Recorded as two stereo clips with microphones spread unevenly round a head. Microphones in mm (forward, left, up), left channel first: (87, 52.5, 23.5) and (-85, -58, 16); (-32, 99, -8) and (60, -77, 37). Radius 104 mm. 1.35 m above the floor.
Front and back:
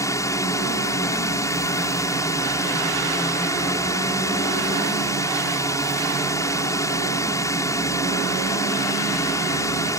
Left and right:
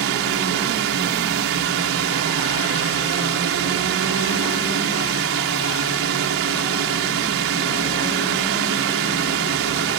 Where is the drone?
40° right.